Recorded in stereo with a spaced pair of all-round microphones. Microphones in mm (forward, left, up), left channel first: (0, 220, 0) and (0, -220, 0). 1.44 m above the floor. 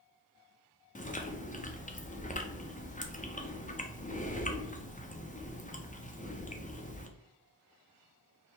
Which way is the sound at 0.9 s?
20° left (ahead or behind).